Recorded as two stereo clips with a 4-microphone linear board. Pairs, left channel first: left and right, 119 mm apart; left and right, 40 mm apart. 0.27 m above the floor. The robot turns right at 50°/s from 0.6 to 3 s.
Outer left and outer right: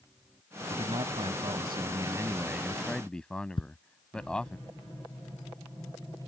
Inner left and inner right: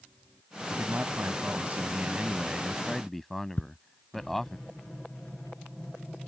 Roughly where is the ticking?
Left.